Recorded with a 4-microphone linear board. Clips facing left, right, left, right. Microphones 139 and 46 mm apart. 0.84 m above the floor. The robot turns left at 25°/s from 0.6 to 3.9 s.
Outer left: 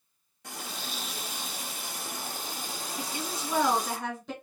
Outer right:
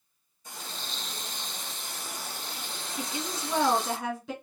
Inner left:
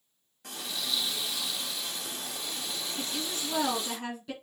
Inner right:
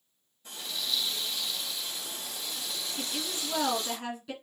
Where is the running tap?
95° left, 0.9 m; by 4.0 s 15° left, 0.9 m.